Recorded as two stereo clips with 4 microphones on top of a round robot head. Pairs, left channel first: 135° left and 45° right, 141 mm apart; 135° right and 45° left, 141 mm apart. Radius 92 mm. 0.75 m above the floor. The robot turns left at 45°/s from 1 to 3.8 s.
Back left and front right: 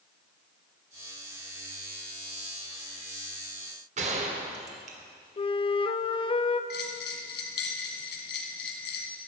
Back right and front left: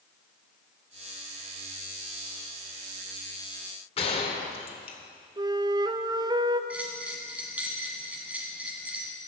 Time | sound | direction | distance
4.0 | a gunshot | 85° right | 1.7 m
5.4 | a flute | 95° left | 0.6 m
6.7 | a bell | 125° left | 1.3 m